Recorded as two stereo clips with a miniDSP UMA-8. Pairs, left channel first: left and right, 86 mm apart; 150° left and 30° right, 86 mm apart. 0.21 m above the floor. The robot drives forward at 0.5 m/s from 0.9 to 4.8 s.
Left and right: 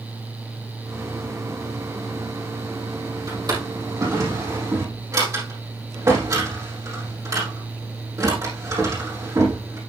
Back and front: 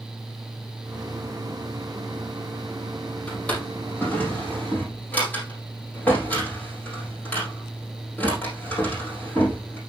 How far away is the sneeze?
I don't hear a sneeze.